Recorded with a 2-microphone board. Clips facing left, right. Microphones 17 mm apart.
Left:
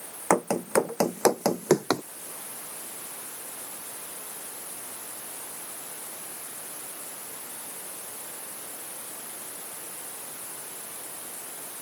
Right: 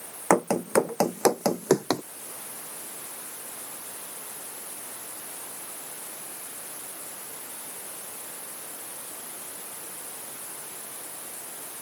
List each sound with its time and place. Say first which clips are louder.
0.3 s running footsteps: right 2 dB; 5° right (ahead or behind); by 2.0 s 25° left (ahead or behind)